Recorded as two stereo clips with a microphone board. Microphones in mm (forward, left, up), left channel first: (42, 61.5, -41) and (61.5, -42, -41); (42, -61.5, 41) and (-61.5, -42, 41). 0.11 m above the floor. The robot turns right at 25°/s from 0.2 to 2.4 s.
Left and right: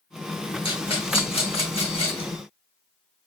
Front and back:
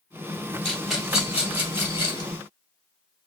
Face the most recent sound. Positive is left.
turn(degrees=120)